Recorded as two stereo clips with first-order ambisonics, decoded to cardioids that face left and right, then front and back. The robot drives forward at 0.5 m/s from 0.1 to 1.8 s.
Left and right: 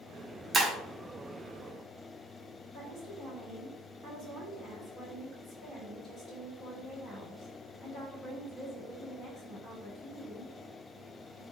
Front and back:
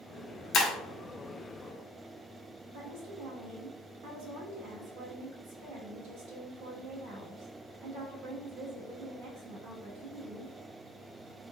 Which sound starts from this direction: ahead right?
Breaking glass, at 0.5 s.